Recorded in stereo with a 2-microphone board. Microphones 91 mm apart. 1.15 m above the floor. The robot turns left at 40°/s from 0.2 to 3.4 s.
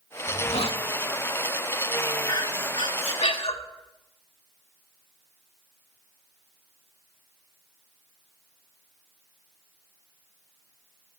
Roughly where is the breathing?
Behind left.